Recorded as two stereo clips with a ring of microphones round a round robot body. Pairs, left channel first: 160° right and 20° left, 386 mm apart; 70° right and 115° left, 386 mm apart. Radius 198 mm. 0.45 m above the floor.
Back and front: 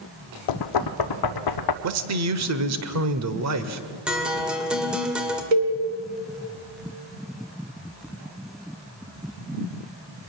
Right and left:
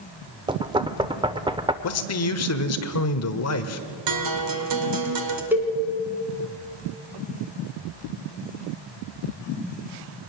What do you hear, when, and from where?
0.5 s knocking: 170° right, 0.8 m
1.8 s a man speaking: 20° right, 1.4 m
4.1 s a guitar: 110° left, 2 m
5.5 s a cowbell: 25° left, 3 m